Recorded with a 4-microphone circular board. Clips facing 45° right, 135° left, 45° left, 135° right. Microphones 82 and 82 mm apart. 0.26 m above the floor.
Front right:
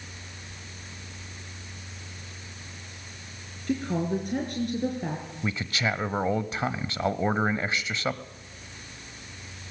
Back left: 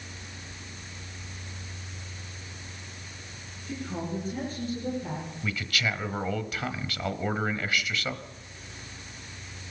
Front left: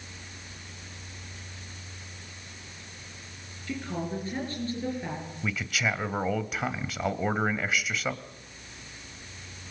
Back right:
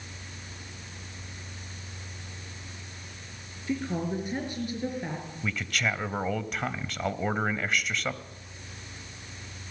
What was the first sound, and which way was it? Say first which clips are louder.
A woman speaking: front right 7 dB, back right 3 dB; 65° right.